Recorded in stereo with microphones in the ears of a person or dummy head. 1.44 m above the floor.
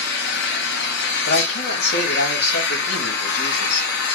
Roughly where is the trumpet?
I don't hear a trumpet.